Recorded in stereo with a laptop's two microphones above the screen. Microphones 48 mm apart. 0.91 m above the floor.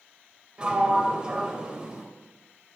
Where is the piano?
I don't hear a piano.